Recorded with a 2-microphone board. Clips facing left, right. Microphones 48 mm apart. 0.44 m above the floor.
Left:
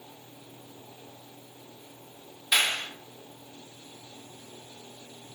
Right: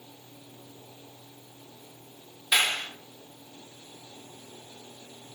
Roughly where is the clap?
Centre.